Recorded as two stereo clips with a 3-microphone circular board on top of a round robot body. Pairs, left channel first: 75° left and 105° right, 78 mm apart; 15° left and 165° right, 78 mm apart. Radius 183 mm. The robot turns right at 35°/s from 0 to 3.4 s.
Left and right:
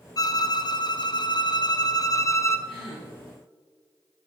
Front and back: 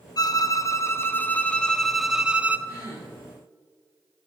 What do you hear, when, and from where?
0.2 s a violin: 40° left, 0.7 m; by 2.6 s 125° left, 0.7 m
2.7 s a gasp: 55° left, 2.5 m; by 3.1 s 70° left, 2.5 m